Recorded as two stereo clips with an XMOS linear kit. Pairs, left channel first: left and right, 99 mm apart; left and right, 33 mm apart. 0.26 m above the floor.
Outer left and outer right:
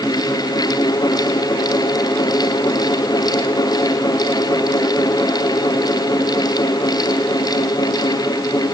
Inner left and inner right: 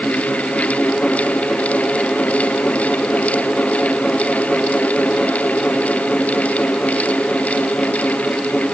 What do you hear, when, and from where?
Only background noise.